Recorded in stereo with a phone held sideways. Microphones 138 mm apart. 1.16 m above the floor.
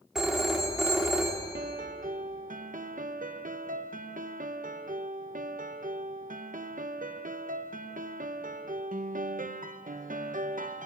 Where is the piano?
80° right, 0.8 m.